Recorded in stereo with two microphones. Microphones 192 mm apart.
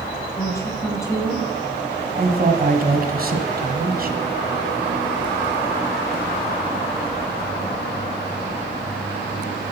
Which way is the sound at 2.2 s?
50° right (ahead or behind).